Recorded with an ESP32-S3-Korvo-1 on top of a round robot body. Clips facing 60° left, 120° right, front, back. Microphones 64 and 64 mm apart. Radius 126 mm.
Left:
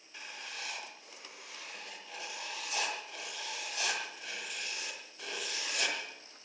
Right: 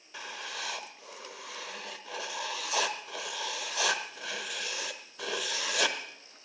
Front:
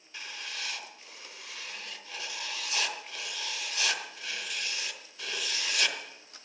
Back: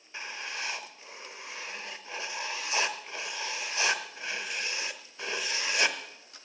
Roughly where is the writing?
Behind right.